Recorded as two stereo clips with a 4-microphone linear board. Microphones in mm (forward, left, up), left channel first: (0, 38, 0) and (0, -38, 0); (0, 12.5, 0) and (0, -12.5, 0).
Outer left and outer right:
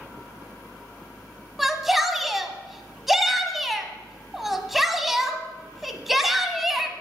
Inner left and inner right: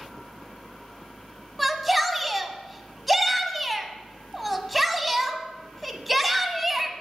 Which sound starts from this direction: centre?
A shout, at 1.6 s.